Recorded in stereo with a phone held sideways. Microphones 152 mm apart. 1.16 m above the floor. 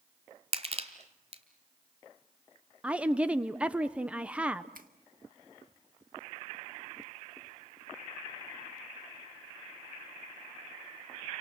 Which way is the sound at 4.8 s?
80° right.